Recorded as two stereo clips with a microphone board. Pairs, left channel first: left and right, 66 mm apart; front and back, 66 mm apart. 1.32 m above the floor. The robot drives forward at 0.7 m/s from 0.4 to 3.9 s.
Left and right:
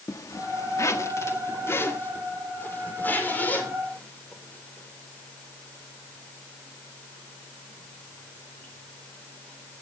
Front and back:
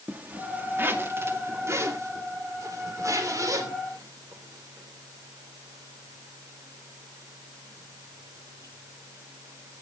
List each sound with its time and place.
0.1 s a zipper: 120° left, 1.8 m; by 9.8 s 155° left, 3.5 m